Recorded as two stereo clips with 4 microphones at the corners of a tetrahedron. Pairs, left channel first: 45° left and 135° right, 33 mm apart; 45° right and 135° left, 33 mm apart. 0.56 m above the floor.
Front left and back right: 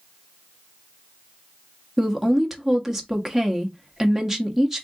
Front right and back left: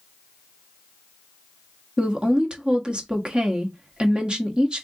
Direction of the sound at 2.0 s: 150° left.